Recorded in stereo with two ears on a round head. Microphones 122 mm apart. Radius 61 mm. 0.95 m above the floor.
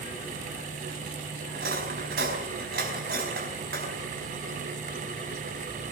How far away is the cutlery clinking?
About 4.5 m.